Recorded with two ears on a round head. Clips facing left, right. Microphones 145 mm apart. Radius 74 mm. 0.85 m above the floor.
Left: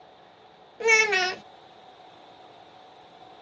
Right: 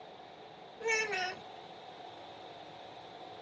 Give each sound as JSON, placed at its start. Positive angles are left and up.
{"t": 0.8, "sound": "a child speaking", "side_deg": 70}